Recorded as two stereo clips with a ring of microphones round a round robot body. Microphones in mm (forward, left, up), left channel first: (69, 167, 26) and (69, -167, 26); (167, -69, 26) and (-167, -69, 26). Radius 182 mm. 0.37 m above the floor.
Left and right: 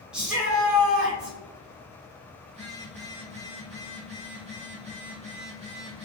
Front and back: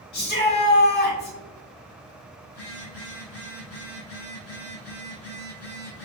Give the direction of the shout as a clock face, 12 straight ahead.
12 o'clock.